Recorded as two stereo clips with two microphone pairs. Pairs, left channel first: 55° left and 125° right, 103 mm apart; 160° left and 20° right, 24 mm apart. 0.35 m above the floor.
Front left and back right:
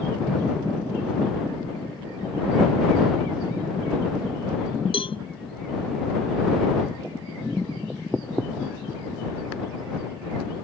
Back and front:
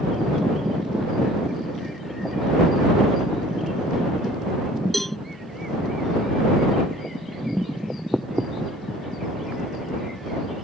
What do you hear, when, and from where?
4.9 s a cowbell: 75° left